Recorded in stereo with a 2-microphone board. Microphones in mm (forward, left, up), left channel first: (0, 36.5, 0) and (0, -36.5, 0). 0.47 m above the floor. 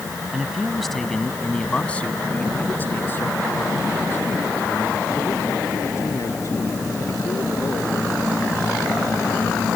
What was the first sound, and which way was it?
A man speaking, 5° right (ahead or behind).